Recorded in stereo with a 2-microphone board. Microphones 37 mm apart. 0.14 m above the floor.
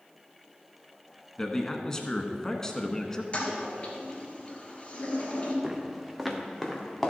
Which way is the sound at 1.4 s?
20° left (ahead or behind).